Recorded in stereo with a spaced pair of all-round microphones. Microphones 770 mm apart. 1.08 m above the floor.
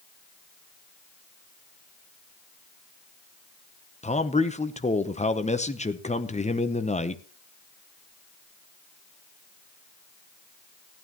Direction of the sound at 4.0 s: 10° left (ahead or behind).